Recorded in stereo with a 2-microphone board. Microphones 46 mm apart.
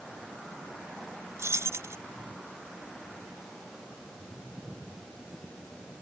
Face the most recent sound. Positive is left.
turn(degrees=-80)